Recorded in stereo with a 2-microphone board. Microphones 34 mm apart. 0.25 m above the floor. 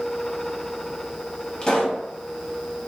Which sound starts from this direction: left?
A pop, at 1.6 s.